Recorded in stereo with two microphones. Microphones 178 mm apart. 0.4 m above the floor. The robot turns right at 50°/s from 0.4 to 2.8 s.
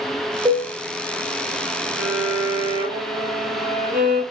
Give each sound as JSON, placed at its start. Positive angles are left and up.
{"t": 0.5, "sound": "a cowbell", "side_deg": -25, "distance_m": 1.4}
{"t": 2.0, "sound": "a violin", "azimuth_deg": -115, "distance_m": 1.9}